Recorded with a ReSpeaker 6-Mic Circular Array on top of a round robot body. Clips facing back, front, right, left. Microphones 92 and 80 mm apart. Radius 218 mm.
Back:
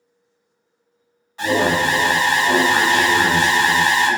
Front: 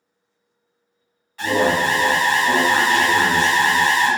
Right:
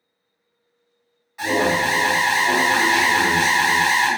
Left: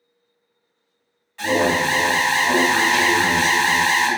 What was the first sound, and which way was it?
An alarm, 150° right.